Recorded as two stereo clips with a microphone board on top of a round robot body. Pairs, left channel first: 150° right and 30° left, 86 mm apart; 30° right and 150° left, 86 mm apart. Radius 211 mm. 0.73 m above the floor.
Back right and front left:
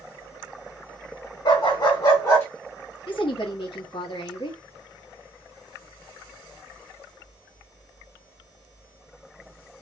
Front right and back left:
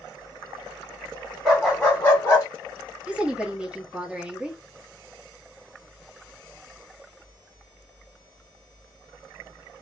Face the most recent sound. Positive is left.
turn(degrees=-130)